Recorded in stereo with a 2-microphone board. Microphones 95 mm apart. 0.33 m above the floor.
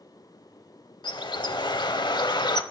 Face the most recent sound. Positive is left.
turn(degrees=50)  # may be behind; listen again after turning